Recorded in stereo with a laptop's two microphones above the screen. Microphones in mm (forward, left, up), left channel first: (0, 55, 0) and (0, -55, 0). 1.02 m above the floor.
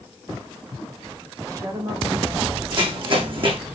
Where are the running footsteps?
50° right (ahead or behind), 3 m.